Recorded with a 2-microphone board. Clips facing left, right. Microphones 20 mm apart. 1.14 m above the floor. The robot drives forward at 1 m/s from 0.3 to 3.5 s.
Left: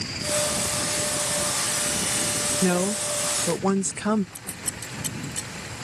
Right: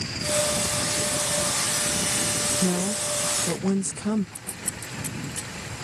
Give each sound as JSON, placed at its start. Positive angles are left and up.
{"t": 2.6, "sound": "a woman speaking", "side_deg": 60}
{"t": 4.3, "sound": "scissors", "side_deg": 60}